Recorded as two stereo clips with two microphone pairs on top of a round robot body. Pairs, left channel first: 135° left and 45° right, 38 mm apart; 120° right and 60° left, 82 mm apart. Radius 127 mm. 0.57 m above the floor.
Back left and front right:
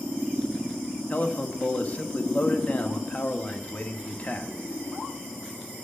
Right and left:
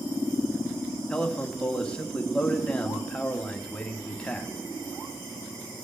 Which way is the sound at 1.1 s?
165° left.